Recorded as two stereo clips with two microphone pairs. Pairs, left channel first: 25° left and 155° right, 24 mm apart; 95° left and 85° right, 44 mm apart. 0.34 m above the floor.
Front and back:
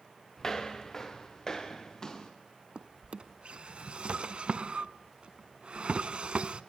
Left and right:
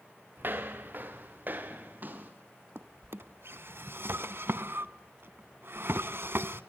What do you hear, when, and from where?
0.4 s footsteps: 45° right, 3 m; by 2.3 s 40° right, 4 m
2.8 s a drawer: 115° right, 0.9 m